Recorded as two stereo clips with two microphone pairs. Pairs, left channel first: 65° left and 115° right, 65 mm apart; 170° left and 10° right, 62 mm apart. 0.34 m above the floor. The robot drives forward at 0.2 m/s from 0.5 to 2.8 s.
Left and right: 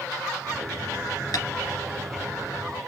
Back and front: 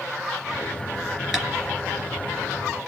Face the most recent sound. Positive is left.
turn(degrees=85)